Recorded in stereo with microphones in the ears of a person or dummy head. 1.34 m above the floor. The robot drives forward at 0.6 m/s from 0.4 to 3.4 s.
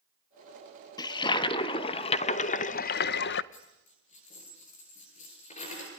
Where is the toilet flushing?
25° left (ahead or behind), 1.7 m; by 3.4 s 70° left (ahead or behind), 0.7 m.